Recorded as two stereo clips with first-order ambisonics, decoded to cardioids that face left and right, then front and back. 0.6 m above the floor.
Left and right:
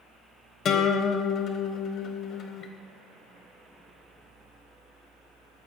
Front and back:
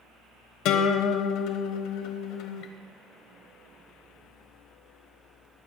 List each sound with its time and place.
0.7 s a guitar: 35° left, 1.5 m